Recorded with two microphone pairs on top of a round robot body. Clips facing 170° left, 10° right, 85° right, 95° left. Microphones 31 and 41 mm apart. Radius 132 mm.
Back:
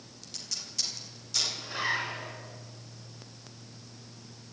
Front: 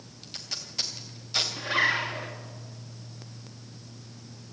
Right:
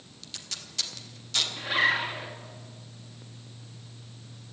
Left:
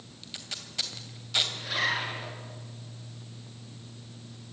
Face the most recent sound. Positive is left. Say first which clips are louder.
# front 9 dB, right 4 dB
turn(degrees=-15)